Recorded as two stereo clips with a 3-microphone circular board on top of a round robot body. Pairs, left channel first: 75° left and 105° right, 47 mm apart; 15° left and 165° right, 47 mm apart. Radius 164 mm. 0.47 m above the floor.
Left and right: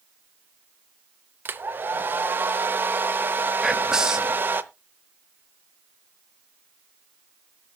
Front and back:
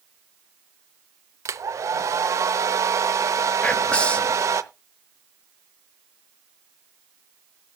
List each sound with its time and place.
1.4 s a hair dryer: 150° right, 0.8 m
3.6 s whispering: 35° right, 0.8 m